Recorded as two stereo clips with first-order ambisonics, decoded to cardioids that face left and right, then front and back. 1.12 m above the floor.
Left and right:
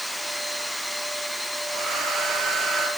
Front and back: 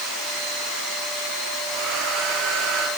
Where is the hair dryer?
150° right, 8 m.